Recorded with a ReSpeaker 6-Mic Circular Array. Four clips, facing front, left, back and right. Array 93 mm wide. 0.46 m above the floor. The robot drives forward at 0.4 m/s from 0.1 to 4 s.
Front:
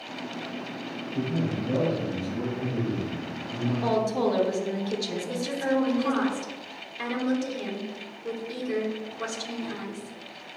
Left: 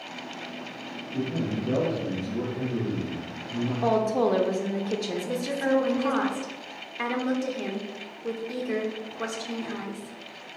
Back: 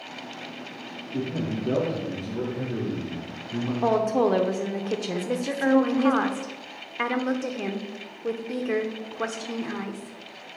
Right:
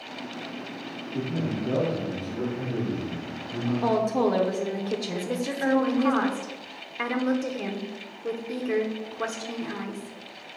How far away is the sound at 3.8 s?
About 0.8 m.